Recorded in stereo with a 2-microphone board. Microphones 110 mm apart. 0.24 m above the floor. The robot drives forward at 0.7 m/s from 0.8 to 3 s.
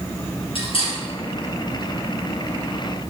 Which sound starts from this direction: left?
Cutlery clinking, at 0.6 s.